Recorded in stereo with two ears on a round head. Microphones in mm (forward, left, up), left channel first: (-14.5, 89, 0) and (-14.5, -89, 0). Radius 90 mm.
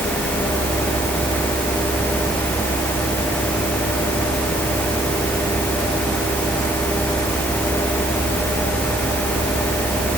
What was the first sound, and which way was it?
Only background noise.